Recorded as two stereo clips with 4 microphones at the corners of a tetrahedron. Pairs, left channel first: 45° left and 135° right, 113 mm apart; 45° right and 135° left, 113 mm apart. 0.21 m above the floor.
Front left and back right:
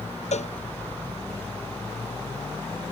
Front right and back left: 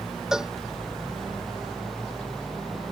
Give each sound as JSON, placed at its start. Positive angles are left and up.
{"t": 0.3, "sound": "a cowbell", "azimuth_deg": 50}